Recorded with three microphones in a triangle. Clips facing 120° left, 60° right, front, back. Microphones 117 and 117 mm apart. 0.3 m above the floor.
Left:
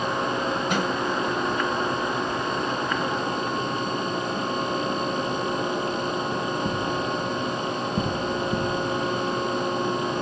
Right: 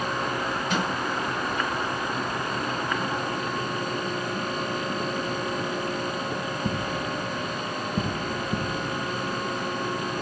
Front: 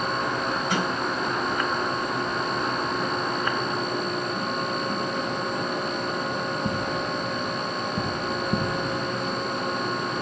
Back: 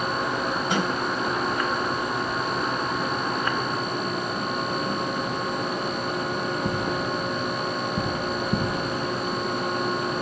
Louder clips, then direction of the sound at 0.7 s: Even, back 1 dB; 120° left.